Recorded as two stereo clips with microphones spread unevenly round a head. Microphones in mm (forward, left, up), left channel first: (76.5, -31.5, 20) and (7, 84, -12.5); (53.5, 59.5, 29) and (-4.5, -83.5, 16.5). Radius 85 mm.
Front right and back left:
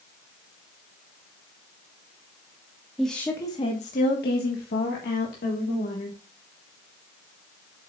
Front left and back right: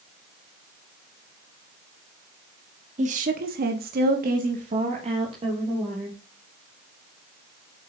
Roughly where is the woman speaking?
Behind right.